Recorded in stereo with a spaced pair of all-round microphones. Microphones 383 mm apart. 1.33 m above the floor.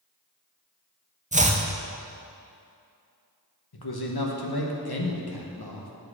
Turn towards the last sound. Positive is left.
turn(degrees=70)  # may be behind; listen again after turning